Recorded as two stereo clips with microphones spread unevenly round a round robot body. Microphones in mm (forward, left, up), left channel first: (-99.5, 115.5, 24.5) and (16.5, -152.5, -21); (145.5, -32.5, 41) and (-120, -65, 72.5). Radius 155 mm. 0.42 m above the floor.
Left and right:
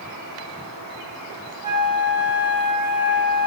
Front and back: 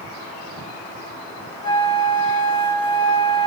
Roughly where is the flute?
Right.